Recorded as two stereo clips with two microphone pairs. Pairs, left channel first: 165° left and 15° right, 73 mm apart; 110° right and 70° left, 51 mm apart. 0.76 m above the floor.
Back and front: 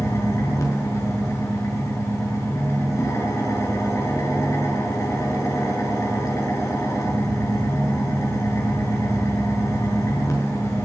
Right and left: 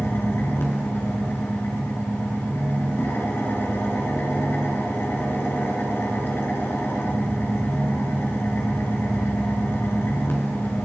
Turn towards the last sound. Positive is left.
turn(degrees=-150)